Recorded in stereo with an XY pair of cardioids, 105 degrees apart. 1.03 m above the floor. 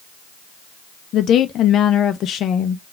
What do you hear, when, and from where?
1.1 s a woman speaking: 70° left, 0.6 m